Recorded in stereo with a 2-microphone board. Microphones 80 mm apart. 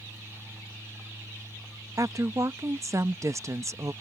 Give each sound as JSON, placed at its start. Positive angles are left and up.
{"t": 2.0, "sound": "a woman speaking", "side_deg": -40}